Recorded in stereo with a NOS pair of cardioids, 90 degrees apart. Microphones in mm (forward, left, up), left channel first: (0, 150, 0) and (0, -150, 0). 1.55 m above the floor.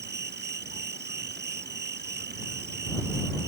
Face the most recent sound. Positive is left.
turn(degrees=-35)